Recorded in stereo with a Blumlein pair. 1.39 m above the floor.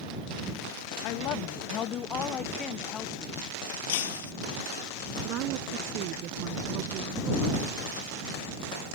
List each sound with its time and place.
1.0 s a woman speaking: 40° left; by 3.4 s 20° left
3.9 s breaking glass: 55° left
5.2 s a woman speaking: 40° right